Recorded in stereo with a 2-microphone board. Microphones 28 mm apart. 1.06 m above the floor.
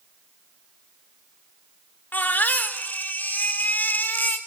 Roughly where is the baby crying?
Left.